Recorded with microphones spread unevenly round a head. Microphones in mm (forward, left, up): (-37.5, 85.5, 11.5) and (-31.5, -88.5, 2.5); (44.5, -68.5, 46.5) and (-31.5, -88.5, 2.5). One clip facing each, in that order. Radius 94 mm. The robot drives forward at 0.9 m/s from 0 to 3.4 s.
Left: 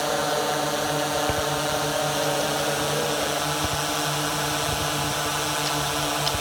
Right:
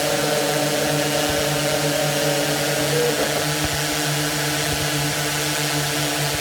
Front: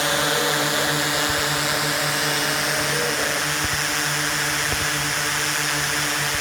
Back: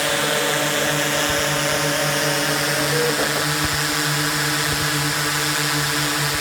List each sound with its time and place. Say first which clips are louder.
0.0 s a drone: right 4 dB, back 1 dB; 80° right; by 6.4 s 140° right